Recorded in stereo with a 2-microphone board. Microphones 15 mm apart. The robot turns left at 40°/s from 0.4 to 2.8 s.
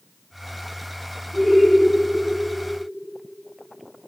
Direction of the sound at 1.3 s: 60° left (ahead or behind).